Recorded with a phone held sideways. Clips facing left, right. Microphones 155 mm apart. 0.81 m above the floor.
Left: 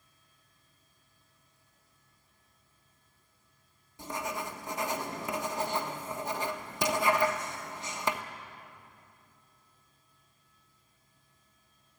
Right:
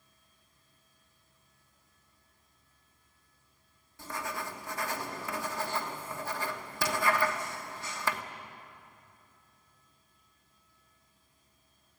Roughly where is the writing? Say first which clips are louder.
Left 2 dB; centre.